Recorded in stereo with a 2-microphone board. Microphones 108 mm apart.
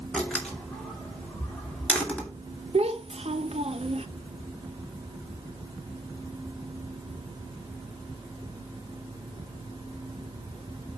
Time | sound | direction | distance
0.1 | a door slam | 10° left (ahead or behind) | 2.5 m
2.7 | a child speaking | 70° right (ahead or behind) | 1.0 m